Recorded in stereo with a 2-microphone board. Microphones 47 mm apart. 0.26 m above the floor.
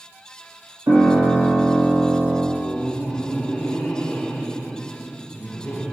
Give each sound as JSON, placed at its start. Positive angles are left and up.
{"t": 0.9, "sound": "a piano", "side_deg": -70, "distance_m": 1.8}
{"t": 2.5, "sound": "laughter", "side_deg": 40, "distance_m": 1.6}